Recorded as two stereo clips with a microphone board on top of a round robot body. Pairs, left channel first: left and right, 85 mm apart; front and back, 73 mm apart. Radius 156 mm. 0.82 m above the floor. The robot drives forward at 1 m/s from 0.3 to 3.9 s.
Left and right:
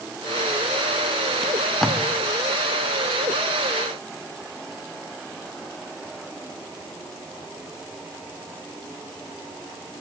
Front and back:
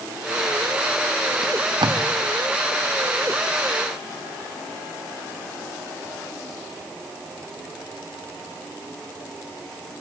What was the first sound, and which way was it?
Tape being pulled, 175° left.